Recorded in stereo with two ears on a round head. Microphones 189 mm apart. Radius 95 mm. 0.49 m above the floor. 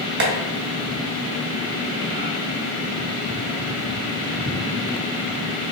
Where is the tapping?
50° right (ahead or behind), 1.0 m.